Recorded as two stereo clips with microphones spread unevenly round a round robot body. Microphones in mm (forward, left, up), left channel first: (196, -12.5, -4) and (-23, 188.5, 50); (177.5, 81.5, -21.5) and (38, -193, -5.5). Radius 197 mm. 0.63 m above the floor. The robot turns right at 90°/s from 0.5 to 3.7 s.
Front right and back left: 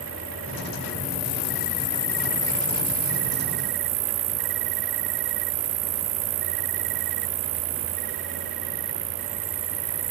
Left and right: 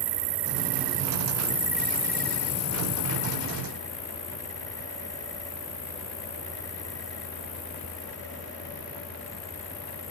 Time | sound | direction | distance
0.0 | an insect | 145° right | ?